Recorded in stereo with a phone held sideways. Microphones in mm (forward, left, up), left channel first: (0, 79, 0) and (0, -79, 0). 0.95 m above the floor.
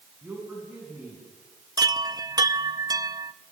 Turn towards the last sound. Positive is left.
turn(degrees=-25)  # may be behind; listen again after turning